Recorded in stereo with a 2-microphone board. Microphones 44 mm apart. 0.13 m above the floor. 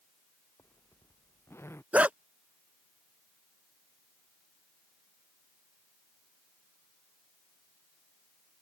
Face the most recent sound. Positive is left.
turn(degrees=-30)  # may be behind; listen again after turning